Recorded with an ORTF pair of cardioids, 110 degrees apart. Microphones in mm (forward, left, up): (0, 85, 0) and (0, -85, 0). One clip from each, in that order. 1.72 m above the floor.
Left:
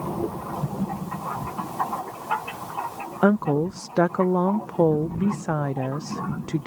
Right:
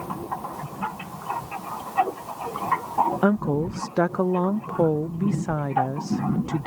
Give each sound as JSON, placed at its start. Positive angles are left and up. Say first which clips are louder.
{"t": 3.2, "sound": "a woman speaking", "louder": "left 2 dB", "azimuth_deg": 5}